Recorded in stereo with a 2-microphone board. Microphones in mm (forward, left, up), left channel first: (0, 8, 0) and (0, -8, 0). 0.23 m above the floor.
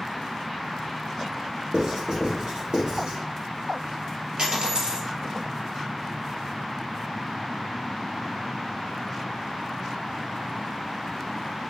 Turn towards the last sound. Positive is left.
turn(degrees=-60)  # may be behind; listen again after turning